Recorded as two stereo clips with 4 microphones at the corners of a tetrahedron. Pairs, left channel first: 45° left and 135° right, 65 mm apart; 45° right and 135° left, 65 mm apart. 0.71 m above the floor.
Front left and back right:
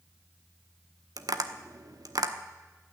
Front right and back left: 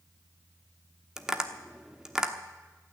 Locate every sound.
1.2 s tapping: 140° right, 1.1 m